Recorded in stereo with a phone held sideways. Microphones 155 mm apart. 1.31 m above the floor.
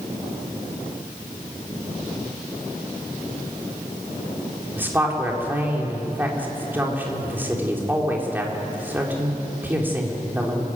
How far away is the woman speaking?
About 4 m.